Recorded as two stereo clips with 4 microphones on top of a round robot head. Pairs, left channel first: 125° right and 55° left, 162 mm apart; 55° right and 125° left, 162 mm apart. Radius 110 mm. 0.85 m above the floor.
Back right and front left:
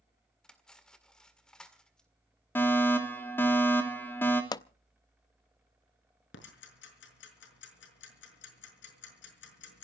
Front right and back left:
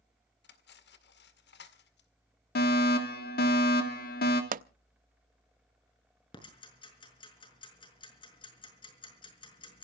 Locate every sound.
0.4 s cutlery clinking: 40° right, 2.0 m
2.5 s a fire alarm: 50° right, 3 m
4.5 s a pop: 165° left, 0.5 m
6.3 s ticking: 115° right, 5.5 m